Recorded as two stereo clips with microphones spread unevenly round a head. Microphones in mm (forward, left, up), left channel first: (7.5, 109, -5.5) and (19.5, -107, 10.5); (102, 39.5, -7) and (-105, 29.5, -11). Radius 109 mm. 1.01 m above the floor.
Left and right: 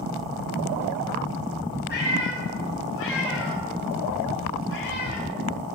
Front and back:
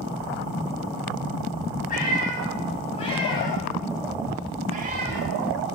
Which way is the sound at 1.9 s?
50° left.